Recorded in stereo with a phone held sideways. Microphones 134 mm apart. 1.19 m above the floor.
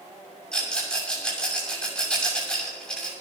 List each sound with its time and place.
0.5 s a rattle: 5° left (ahead or behind), 6.5 m